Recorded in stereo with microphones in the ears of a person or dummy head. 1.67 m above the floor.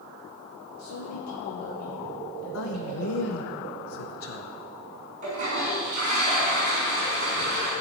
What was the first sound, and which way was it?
A man speaking, 85° left.